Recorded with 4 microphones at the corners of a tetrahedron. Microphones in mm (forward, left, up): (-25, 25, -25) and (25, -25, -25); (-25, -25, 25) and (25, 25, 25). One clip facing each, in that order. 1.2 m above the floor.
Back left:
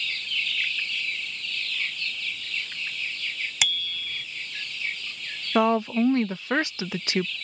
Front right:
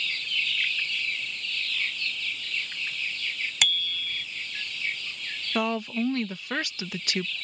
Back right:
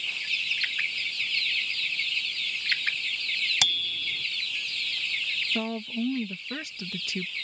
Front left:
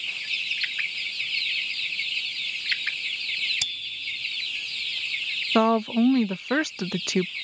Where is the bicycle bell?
140° right.